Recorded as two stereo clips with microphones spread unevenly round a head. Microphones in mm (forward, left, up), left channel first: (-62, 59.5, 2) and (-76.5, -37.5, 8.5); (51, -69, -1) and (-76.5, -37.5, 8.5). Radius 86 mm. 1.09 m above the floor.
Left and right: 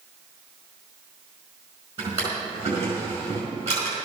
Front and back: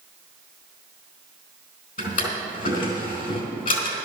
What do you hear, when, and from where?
2.0 s a drawer: 25° right, 4 m